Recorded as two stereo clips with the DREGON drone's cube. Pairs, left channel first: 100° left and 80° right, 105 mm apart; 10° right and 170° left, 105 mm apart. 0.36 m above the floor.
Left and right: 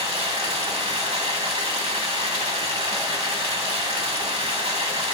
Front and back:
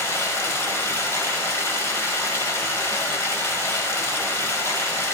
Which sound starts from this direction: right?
Running water, at 0.0 s.